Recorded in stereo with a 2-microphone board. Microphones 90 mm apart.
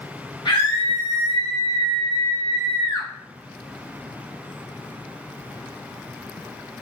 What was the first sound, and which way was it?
A scream, 50° left (ahead or behind).